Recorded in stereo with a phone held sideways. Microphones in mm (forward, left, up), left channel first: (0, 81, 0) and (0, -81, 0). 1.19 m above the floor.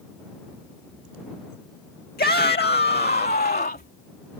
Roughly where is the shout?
Left.